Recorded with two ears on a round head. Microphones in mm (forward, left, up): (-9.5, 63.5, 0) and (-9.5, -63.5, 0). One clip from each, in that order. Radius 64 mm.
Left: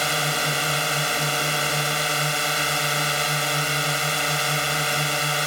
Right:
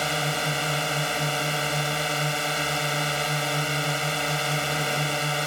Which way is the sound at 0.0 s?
25° left (ahead or behind).